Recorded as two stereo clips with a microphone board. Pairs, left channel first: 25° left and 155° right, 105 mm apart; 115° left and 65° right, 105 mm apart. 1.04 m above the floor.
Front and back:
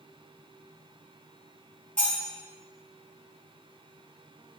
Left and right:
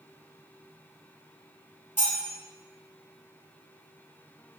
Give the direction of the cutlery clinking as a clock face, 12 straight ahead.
9 o'clock.